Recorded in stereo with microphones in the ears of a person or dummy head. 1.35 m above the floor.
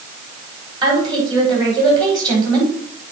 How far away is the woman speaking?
About 4.5 m.